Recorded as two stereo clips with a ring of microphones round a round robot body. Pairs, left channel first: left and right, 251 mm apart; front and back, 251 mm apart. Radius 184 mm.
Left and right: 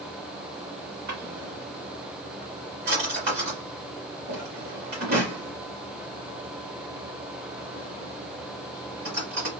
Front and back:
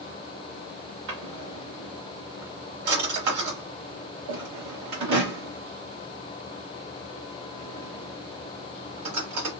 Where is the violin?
I don't hear a violin.